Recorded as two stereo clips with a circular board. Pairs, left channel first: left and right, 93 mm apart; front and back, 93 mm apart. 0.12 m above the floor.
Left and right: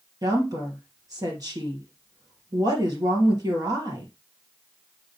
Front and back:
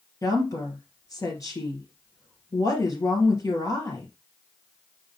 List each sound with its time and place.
0.2 s a woman speaking: 45° right, 3 m